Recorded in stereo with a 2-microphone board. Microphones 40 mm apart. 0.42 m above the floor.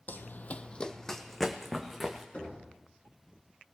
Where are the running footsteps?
55° left (ahead or behind), 0.6 m; by 2.2 s 5° right (ahead or behind), 2.0 m.